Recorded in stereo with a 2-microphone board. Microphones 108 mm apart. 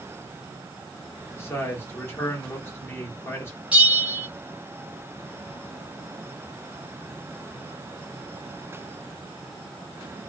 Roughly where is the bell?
Centre.